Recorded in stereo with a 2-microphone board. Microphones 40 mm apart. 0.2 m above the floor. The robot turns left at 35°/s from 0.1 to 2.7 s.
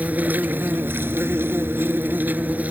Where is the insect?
45° right; by 2.7 s 135° right.